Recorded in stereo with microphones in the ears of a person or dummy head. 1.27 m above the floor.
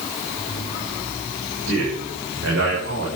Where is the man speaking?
75° right (ahead or behind), 7 m.